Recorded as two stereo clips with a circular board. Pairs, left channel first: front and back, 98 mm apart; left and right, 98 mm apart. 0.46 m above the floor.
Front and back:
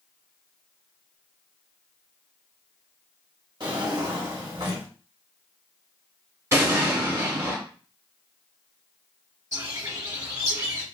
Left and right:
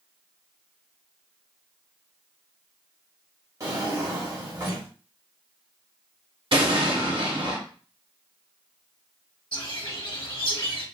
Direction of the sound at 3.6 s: 140° right.